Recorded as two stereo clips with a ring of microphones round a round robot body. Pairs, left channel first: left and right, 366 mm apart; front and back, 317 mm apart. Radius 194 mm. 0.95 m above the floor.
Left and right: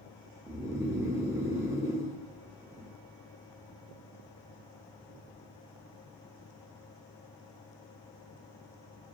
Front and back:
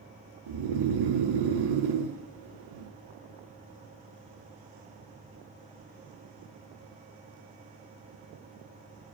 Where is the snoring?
175° right, 0.5 m.